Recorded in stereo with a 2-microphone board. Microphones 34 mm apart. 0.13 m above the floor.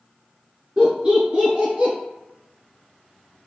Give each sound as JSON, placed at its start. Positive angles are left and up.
{"t": 0.8, "sound": "laughter", "side_deg": -30, "distance_m": 1.4}